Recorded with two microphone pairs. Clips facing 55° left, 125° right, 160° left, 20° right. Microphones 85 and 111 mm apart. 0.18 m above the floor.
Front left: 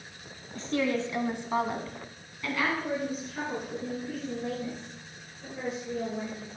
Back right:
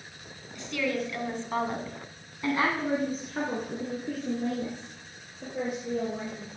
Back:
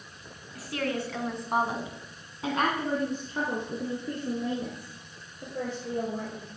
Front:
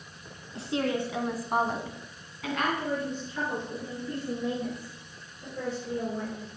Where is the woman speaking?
30° left, 1.7 m; by 6.5 s 160° right, 5 m.